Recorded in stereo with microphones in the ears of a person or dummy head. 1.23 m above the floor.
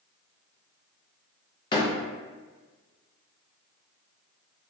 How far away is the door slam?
About 0.6 m.